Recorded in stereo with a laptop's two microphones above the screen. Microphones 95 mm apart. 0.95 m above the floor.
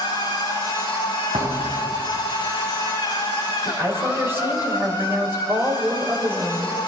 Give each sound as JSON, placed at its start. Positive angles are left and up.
{"t": 0.0, "sound": "a machine running", "side_deg": 50, "distance_m": 5.5}
{"t": 1.3, "sound": "a thud", "side_deg": -70, "distance_m": 3.5}
{"t": 3.6, "sound": "a woman speaking", "side_deg": -25, "distance_m": 4.0}